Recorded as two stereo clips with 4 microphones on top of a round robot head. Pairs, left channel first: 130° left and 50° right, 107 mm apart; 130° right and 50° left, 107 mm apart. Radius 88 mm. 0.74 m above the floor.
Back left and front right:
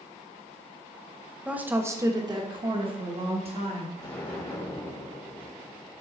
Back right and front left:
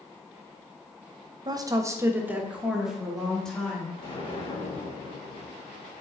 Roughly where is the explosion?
Behind.